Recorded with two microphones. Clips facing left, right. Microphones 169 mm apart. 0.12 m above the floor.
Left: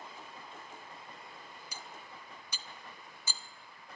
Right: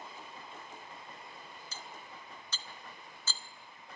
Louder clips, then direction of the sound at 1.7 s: Right 1 dB; 15° left (ahead or behind).